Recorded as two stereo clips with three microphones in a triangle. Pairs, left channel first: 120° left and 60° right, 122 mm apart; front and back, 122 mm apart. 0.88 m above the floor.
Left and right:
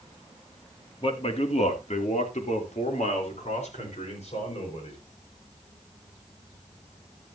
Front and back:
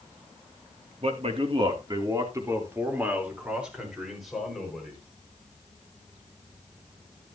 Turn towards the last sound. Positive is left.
turn(degrees=85)